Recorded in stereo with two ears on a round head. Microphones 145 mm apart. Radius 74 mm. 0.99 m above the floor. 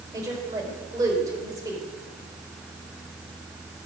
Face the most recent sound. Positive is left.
turn(degrees=-20)  # may be behind; listen again after turning